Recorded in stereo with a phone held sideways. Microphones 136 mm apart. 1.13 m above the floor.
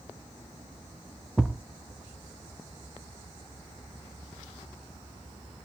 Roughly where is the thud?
Centre.